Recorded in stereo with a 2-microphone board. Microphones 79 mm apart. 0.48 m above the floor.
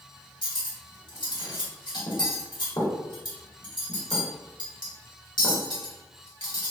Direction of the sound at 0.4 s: 60° left (ahead or behind).